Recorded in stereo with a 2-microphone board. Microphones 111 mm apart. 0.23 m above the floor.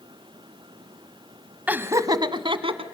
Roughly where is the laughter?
Centre.